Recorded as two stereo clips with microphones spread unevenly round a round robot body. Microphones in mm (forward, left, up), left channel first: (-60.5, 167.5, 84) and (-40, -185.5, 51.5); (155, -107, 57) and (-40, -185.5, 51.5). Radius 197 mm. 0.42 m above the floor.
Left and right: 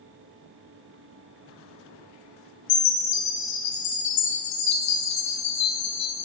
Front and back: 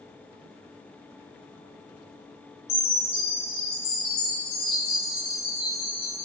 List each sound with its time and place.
2.7 s a chime: 65° left, 2.5 m